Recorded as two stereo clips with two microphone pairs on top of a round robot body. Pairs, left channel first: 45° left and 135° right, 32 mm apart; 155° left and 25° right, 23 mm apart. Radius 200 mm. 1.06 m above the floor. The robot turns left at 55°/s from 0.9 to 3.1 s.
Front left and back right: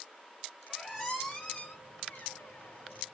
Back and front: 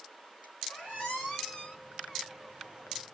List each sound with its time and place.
0.7 s a squeak: 145° left, 1.2 m; by 3.0 s 30° left, 1.2 m